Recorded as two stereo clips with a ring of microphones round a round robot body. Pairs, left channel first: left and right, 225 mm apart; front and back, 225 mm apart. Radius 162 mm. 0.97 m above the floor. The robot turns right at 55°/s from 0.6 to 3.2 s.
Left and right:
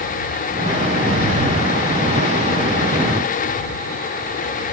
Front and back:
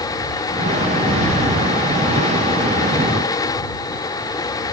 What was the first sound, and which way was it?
Only background noise.